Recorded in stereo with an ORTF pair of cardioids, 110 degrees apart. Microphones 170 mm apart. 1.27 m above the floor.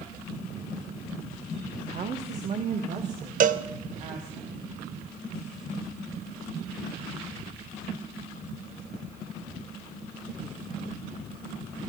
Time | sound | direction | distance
1.9 | a woman speaking | 45° right | 1.1 m
3.4 | a cowbell | 50° right | 0.8 m